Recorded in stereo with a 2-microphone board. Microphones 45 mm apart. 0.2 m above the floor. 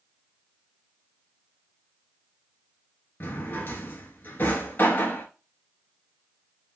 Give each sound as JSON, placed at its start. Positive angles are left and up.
{"t": 3.2, "sound": "a drawer", "side_deg": 50, "distance_m": 0.7}